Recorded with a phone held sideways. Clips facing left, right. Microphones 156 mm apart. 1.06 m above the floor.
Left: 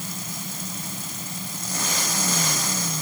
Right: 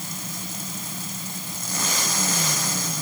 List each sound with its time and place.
Only background noise.